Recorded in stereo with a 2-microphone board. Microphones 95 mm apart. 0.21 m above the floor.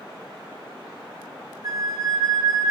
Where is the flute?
30° right (ahead or behind), 1.5 m.